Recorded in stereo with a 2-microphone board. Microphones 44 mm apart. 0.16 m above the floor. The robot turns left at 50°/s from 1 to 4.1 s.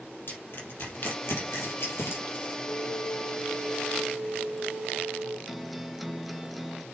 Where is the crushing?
55° left (ahead or behind), 4 m; by 2.6 s 45° left (ahead or behind), 4 m.